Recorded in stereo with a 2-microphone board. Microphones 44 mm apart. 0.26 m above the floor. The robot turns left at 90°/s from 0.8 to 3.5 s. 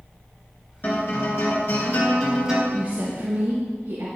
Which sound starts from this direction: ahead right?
A woman speaking, at 2.7 s.